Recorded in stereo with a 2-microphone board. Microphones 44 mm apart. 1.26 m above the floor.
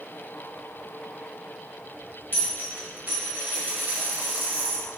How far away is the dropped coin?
About 1.4 m.